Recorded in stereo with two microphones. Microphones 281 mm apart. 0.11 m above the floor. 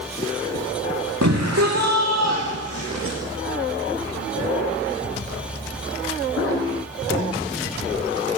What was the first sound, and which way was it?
A shout, 70° right (ahead or behind).